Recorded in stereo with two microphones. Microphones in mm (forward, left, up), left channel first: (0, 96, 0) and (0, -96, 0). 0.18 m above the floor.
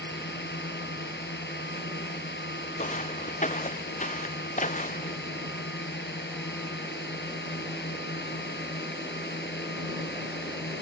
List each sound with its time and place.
0.0 s a drone: 65° left (ahead or behind)
2.8 s footsteps: 40° left (ahead or behind)